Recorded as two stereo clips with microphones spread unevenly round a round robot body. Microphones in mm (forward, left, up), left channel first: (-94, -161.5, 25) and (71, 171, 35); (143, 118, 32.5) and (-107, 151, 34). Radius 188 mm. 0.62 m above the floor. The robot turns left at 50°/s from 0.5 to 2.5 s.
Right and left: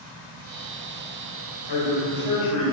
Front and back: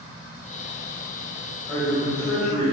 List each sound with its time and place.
1.7 s a man speaking: 85° right, 2.5 m; by 2.7 s 130° right, 2.5 m